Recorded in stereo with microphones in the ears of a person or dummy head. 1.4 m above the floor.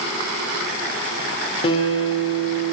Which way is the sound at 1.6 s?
35° left (ahead or behind).